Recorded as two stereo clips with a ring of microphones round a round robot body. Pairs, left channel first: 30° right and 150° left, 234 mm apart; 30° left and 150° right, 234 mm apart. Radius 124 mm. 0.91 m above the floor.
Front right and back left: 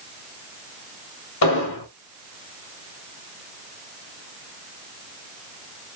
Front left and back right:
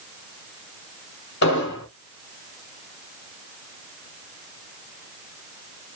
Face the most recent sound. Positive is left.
turn(degrees=-15)